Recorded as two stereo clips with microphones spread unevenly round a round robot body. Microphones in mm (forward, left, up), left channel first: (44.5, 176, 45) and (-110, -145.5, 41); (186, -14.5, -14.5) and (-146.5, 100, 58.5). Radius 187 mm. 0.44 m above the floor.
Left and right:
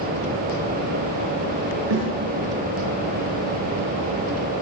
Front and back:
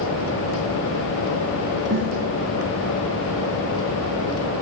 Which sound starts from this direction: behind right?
A snare drum, at 1.9 s.